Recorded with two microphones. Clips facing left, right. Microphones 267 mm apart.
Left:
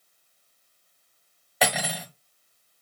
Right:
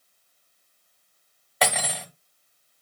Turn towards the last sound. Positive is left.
turn(degrees=0)  # may be behind; listen again after turning